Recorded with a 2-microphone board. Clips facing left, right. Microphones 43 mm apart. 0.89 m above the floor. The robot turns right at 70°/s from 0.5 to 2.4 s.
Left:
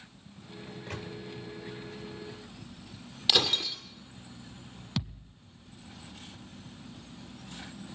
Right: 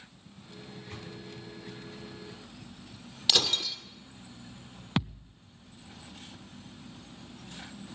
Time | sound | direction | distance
0.7 | a microwave | 70° left (ahead or behind) | 2.5 m
3.3 | breaking glass | 10° left (ahead or behind) | 1.7 m
5.0 | a thud | 40° right (ahead or behind) | 0.9 m